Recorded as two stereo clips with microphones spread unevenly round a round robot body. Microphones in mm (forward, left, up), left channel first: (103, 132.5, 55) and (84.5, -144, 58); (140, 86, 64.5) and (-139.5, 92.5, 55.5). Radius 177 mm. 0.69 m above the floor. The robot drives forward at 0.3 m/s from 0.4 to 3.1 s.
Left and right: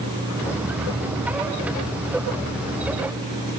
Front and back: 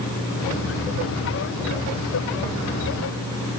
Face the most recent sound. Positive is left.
No sound to turn to.